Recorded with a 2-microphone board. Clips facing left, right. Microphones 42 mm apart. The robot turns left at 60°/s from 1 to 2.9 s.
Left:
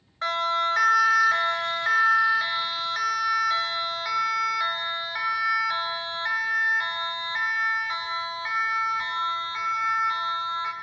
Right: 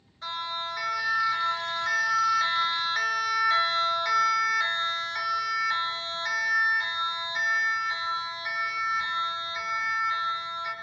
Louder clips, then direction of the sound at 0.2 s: Left 9 dB; 75° left (ahead or behind).